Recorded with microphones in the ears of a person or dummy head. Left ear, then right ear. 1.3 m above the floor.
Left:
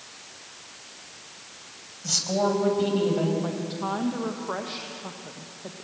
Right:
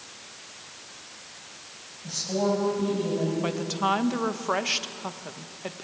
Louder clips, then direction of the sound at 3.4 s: Right 4 dB; 65° right (ahead or behind).